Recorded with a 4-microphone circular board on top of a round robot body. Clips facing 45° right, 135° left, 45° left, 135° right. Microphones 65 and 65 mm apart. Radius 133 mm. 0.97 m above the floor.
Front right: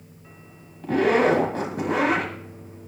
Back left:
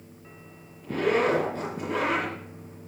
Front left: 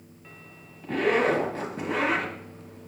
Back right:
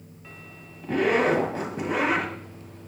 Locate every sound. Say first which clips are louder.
0.8 s a zipper: front right 5 dB, back right 1 dB; 55° right, 1.3 m